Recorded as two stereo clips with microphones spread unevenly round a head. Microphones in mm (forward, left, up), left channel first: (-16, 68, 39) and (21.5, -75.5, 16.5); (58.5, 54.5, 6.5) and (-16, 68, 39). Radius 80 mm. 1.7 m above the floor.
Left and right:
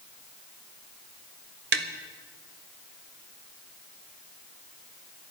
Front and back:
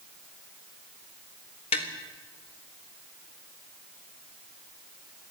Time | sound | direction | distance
1.7 | tapping | 60° right | 1.5 m